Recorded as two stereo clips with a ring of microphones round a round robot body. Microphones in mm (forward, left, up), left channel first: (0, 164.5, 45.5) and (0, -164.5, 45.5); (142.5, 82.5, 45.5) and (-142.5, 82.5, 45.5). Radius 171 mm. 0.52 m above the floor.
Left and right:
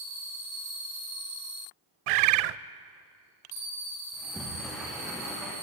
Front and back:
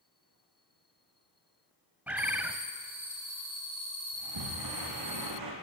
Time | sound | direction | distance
2.1 | a bird | 95° right | 0.7 m
4.1 | a sliding door | straight behind | 6 m